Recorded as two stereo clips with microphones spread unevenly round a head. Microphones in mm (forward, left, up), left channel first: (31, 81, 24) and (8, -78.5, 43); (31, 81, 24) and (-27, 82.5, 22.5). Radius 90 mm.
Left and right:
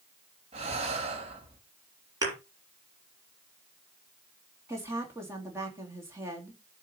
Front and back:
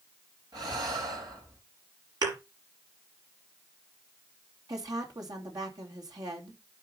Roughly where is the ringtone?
No ringtone in this recording.